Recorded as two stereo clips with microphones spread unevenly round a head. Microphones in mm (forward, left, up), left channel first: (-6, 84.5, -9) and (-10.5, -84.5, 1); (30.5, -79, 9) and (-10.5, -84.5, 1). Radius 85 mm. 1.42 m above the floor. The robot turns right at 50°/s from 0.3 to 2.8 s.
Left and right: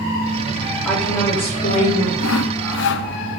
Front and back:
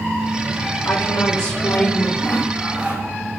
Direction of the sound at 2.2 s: 80° left.